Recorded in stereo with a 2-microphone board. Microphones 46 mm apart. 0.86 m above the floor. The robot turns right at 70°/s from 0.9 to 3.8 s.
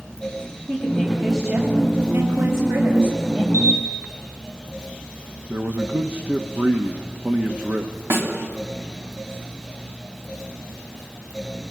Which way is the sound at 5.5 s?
40° right (ahead or behind).